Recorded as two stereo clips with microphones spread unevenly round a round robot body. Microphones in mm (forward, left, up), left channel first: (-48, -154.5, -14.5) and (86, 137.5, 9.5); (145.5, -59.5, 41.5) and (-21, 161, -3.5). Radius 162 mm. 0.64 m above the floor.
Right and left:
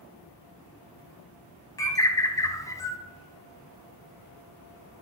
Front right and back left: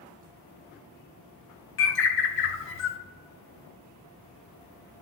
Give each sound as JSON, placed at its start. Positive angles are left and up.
{"t": 1.8, "sound": "a bird", "azimuth_deg": -35, "distance_m": 0.7}